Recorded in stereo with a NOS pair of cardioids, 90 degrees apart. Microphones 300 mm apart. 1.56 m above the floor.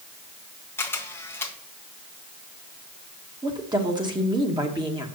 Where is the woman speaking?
15° right, 2 m.